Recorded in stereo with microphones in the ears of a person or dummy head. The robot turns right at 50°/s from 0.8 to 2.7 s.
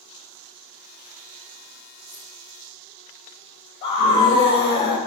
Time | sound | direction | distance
2.1 | keys jangling | 20° left (ahead or behind) | 4.5 m
3.8 | a scream | 25° left (ahead or behind) | 2.5 m